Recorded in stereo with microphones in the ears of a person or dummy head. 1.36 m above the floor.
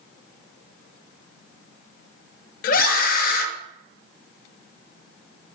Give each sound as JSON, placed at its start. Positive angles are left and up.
{"t": 2.6, "sound": "a scream", "side_deg": 55, "distance_m": 0.9}